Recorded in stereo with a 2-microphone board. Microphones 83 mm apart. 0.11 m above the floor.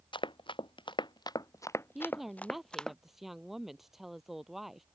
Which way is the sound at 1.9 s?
Centre (ahead or behind).